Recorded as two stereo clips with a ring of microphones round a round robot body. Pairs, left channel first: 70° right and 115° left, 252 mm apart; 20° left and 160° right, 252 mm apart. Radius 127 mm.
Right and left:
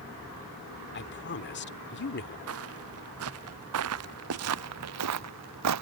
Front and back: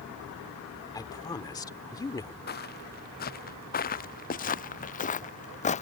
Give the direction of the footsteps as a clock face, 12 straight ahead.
9 o'clock.